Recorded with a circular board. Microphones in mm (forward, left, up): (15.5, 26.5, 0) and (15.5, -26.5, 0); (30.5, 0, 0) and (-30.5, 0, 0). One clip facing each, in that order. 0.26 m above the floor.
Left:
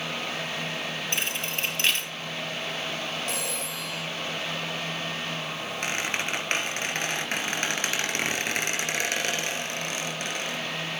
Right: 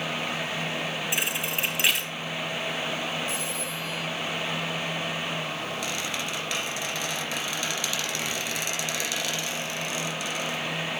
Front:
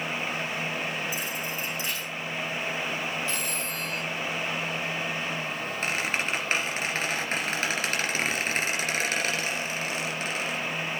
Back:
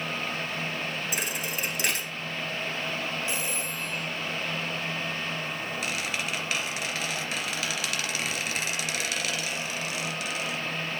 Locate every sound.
1.1 s a thud: 170° right, 2 m
3.3 s a phone ringing: 110° left, 3.5 m
5.8 s a squeak: 50° left, 2.5 m